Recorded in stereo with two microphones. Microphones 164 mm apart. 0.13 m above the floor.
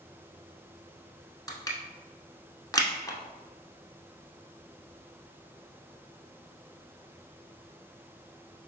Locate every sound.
1.5 s crushing: 20° left (ahead or behind), 0.7 m